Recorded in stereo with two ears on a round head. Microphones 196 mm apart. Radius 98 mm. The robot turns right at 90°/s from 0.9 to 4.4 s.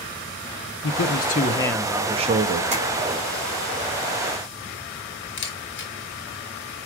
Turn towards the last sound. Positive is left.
turn(degrees=55)  # may be behind; listen again after turning